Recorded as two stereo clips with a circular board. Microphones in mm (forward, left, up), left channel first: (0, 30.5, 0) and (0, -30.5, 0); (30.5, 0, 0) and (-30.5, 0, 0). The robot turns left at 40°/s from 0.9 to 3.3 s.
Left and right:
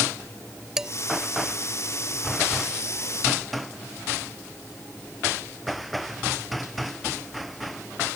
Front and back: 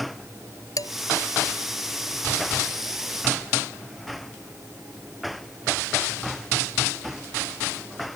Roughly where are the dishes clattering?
Ahead.